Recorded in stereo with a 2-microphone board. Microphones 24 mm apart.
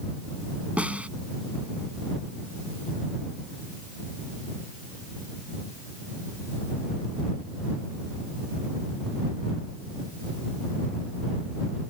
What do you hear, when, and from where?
0.8 s a snare drum: 70° right (ahead or behind)